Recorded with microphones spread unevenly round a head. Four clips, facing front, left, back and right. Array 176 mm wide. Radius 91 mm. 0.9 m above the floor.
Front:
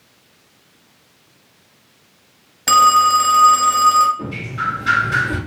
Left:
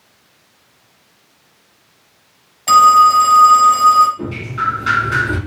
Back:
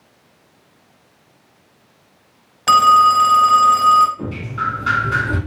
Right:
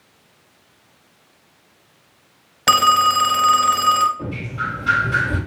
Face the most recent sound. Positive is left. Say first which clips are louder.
# left 5 dB, back 1 dB
turn(degrees=100)